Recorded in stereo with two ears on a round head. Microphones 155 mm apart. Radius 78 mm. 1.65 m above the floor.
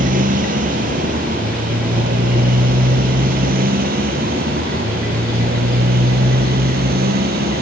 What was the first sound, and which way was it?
A motorcycle, 55° right (ahead or behind).